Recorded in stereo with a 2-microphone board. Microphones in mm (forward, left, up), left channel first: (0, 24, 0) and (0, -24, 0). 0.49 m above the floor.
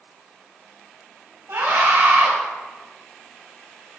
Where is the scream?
60° right (ahead or behind), 4 m.